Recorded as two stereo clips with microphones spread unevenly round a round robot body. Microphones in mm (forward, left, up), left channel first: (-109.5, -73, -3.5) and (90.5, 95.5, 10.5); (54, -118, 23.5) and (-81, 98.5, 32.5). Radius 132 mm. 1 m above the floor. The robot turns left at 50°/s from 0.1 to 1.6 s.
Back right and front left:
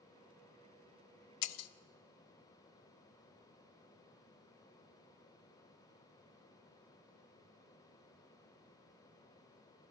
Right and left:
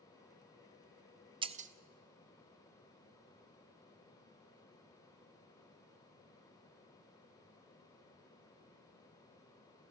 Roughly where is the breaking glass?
Behind.